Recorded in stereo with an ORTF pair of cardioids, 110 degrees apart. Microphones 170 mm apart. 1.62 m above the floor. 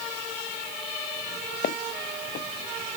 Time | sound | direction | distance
1.6 | footsteps | 60° left | ?